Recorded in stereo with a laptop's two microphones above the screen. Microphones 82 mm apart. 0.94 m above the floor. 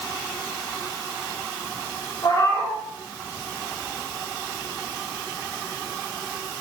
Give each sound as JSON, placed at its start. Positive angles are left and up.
{"t": 2.2, "sound": "a cat meowing", "side_deg": 55, "distance_m": 2.0}